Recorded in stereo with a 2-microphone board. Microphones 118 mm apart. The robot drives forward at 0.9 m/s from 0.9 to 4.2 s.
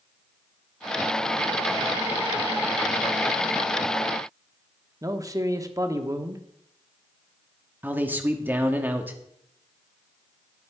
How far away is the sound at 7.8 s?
About 1.4 m.